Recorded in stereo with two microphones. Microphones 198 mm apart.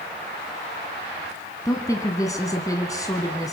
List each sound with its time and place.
1.6 s a woman speaking: 15° left (ahead or behind), 1.3 m